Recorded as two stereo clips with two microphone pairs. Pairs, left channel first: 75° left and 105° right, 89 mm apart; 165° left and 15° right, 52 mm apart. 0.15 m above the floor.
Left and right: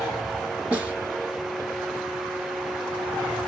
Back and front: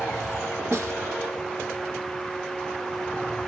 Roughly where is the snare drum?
Ahead right.